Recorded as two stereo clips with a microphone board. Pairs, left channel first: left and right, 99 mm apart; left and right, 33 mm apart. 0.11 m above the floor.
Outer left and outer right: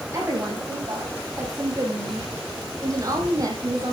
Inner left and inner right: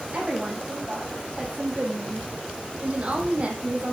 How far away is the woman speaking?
About 6 m.